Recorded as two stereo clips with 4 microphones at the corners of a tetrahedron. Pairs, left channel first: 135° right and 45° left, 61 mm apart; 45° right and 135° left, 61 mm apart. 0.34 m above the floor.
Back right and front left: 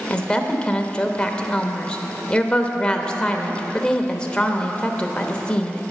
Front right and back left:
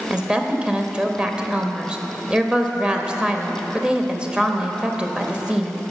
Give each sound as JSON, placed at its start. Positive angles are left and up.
{"t": 0.1, "sound": "a woman speaking", "azimuth_deg": 175, "distance_m": 0.9}